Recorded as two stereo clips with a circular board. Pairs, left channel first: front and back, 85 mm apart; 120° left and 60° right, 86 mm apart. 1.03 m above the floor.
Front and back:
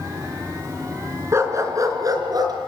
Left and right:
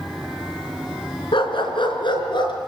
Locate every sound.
1.3 s a dog barking: 125° left, 3.5 m; by 2.5 s 140° left, 5 m